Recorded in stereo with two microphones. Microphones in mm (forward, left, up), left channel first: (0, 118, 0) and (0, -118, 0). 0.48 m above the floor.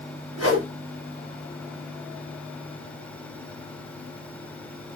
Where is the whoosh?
80° right, 1.3 m.